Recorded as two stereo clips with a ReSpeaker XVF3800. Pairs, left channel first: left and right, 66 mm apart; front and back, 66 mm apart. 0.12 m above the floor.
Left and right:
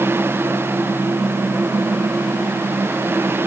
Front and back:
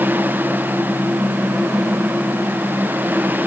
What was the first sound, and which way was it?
Only background noise.